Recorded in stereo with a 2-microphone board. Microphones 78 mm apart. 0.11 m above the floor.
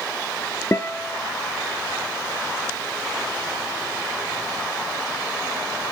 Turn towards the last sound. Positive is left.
turn(degrees=35)  # may be behind; listen again after turning